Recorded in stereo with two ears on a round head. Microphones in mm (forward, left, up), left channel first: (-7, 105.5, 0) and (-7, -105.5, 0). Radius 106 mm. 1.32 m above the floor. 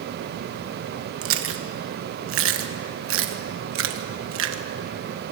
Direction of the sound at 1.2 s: 60° right (ahead or behind).